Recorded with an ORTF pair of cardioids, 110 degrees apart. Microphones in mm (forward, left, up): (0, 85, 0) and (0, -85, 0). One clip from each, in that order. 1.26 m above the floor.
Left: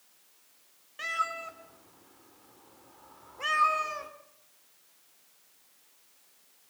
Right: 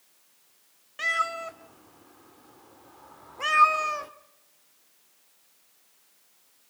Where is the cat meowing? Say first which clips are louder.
Right 5 dB; 30° right, 1.9 m.